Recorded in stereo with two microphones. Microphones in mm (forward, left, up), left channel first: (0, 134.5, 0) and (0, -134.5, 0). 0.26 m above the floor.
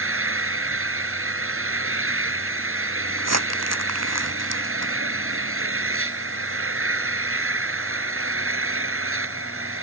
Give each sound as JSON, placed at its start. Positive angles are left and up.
{"t": 0.0, "sound": "an engine running", "side_deg": -55}
{"t": 3.2, "sound": "crumpling", "side_deg": -70}